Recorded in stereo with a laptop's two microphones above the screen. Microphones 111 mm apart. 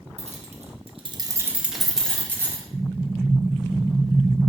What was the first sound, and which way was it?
Keys jangling, 75° right (ahead or behind).